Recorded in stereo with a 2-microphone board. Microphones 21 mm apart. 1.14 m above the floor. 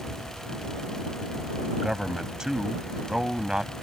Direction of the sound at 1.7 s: 30° right (ahead or behind).